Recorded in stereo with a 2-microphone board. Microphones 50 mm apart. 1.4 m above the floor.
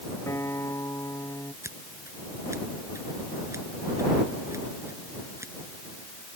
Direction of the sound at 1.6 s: 80° right.